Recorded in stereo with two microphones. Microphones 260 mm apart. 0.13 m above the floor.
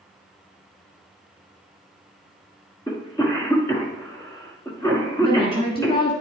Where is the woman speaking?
20° left (ahead or behind), 1.3 m.